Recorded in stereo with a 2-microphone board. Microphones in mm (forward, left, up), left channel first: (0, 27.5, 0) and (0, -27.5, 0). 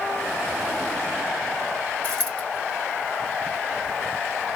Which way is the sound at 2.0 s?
25° left (ahead or behind).